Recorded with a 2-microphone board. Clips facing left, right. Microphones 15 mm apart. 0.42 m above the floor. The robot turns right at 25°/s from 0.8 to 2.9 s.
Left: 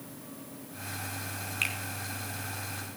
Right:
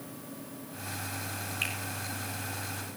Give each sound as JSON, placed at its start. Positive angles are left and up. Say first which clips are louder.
{"t": 1.6, "sound": "a finger snap", "louder": "left 3 dB", "side_deg": 25, "distance_m": 3.5}